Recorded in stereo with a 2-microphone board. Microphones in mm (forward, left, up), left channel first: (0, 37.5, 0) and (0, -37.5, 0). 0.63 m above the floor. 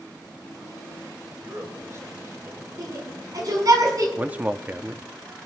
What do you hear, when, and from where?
1.4 s a man speaking: 45° right (ahead or behind), 2.5 m; by 2.7 s 40° right (ahead or behind), 1.7 m
2.8 s a shout: 55° right (ahead or behind), 6 m
4.2 s a man speaking: 20° right (ahead or behind), 0.6 m